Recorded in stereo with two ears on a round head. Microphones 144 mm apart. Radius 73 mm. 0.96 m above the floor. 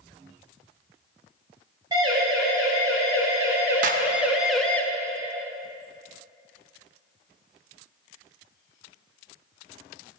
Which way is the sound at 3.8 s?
50° right (ahead or behind).